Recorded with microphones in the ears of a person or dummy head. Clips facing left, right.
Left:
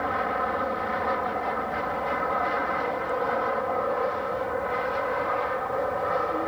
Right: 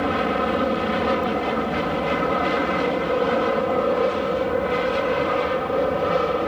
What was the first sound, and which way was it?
An aircraft, 45° right (ahead or behind).